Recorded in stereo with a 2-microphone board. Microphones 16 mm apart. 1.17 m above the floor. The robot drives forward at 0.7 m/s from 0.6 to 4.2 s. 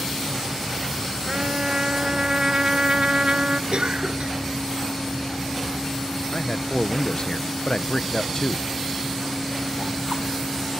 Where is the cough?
85° right; by 4.4 s 80° right.